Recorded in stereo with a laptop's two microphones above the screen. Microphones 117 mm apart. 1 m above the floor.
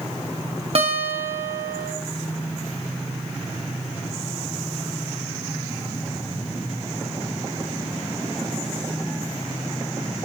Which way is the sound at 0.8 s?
55° right (ahead or behind).